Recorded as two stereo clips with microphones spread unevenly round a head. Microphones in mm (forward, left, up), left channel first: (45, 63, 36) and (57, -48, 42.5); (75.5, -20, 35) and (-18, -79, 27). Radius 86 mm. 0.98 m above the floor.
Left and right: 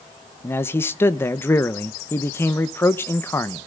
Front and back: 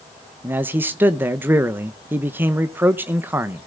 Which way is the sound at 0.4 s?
150° left.